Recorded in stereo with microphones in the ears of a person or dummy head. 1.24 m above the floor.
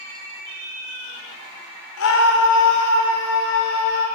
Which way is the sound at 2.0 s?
75° left (ahead or behind).